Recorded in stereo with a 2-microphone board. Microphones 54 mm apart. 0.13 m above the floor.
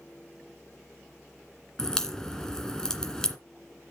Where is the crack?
10° left (ahead or behind), 1.7 m.